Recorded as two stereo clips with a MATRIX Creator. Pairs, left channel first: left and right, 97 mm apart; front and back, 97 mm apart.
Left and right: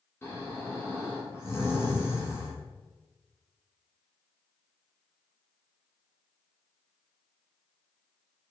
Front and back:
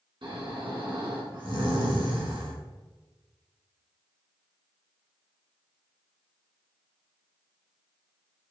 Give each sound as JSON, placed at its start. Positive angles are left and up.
{"t": 0.2, "sound": "snoring", "azimuth_deg": 155, "distance_m": 2.5}